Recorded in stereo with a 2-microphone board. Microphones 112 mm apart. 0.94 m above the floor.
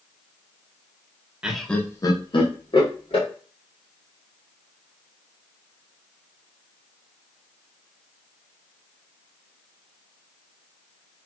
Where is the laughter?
10° right (ahead or behind), 0.6 m; by 3.3 s 50° left (ahead or behind), 1.3 m.